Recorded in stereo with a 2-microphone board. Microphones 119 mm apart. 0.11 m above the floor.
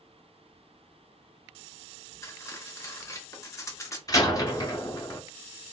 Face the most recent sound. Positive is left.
turn(degrees=30)  # may be behind; listen again after turning